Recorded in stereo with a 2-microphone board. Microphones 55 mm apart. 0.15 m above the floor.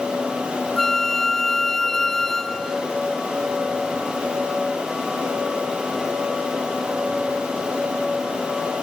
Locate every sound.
0.8 s a flute: 5° left (ahead or behind)